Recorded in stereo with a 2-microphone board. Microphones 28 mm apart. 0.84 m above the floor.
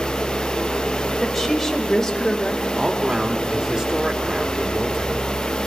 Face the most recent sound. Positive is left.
turn(degrees=-30)  # may be behind; listen again after turning